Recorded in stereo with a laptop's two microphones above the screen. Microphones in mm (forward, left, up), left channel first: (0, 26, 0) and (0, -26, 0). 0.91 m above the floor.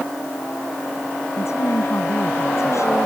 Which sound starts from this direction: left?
A woman speaking, at 1.4 s.